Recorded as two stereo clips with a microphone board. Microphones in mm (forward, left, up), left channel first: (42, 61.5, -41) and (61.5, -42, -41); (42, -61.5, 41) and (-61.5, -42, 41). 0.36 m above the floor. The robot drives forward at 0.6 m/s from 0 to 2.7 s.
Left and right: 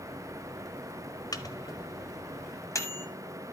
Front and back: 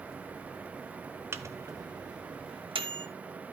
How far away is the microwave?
About 0.9 m.